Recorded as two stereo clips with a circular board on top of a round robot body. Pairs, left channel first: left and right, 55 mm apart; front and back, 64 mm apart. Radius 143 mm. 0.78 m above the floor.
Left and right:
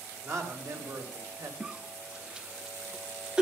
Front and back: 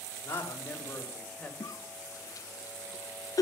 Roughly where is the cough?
Ahead.